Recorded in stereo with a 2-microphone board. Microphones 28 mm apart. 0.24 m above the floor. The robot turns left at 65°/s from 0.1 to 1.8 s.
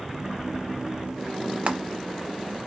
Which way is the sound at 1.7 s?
45° right (ahead or behind).